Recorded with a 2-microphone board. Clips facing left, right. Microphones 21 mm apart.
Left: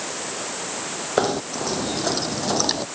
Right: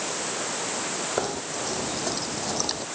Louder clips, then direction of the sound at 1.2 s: Left 11 dB; 25° left (ahead or behind).